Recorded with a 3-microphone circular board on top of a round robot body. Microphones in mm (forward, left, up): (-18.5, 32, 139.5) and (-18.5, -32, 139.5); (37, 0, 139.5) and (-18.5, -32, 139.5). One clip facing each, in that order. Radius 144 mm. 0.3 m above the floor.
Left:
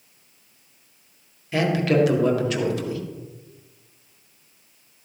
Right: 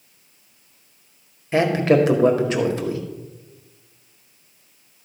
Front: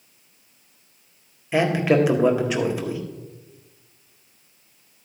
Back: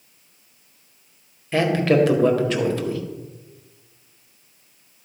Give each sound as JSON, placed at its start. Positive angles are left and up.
{"t": 1.5, "sound": "a man speaking", "azimuth_deg": -40, "distance_m": 1.8}